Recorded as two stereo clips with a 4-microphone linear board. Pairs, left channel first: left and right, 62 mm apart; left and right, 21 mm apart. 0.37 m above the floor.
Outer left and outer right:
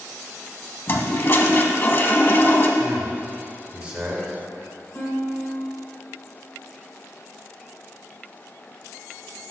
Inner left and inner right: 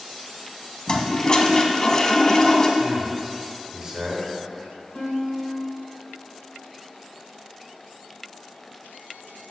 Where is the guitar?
25° left (ahead or behind), 1.7 m.